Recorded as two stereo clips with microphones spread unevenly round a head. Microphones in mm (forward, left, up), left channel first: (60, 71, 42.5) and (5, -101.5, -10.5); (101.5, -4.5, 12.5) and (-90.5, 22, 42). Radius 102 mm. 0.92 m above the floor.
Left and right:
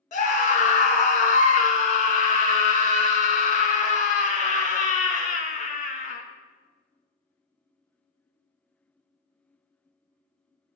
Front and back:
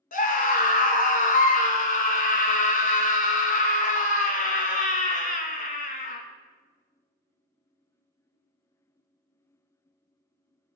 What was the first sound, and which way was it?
A scream, 20° left.